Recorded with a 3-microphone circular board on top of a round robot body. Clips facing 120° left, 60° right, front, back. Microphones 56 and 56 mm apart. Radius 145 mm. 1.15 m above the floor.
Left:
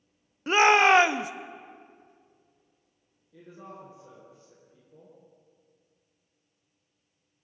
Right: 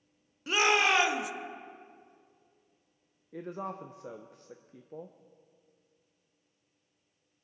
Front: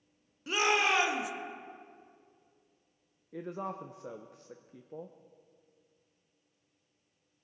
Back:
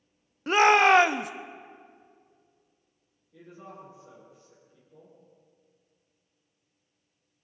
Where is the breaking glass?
No breaking glass in this recording.